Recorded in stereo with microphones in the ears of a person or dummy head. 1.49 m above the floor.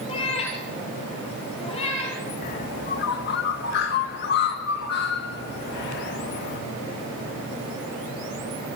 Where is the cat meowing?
25° left (ahead or behind), 5 m.